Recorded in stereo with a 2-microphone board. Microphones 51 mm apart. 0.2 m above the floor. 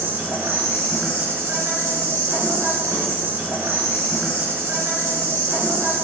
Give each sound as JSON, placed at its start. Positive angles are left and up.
{"t": 0.0, "sound": "an insect", "side_deg": -45, "distance_m": 1.3}